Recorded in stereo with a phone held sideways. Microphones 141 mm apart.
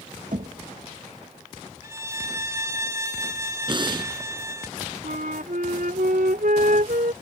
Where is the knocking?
65° right (ahead or behind).